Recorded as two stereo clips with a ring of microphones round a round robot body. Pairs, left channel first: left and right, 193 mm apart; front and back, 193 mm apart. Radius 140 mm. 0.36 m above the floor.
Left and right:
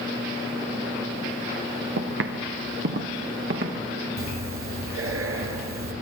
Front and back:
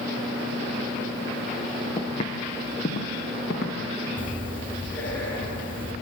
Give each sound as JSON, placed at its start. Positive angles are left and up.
{"t": 2.0, "sound": "footsteps", "azimuth_deg": -75, "distance_m": 1.8}
{"t": 4.2, "sound": "breathing", "azimuth_deg": -85, "distance_m": 3.5}